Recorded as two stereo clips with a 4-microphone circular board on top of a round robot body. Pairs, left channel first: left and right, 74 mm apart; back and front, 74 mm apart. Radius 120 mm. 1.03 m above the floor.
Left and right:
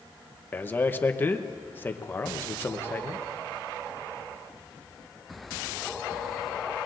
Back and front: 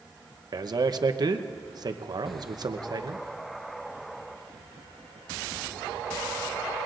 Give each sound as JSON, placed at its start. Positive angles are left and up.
{"t": 0.5, "sound": "a man speaking", "azimuth_deg": 25, "distance_m": 0.9}